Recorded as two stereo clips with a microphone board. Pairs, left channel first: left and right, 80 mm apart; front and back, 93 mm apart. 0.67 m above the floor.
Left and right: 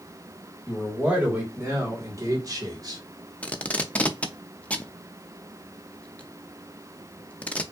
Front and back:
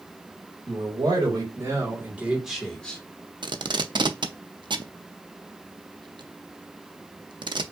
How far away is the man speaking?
About 2 m.